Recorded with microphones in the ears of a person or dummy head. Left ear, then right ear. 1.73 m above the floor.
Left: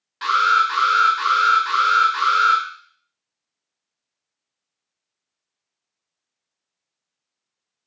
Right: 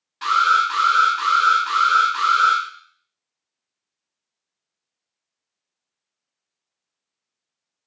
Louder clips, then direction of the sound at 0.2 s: Even; 10° left (ahead or behind).